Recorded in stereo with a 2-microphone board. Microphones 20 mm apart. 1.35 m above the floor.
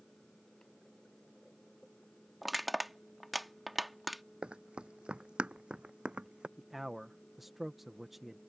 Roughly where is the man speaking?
Centre.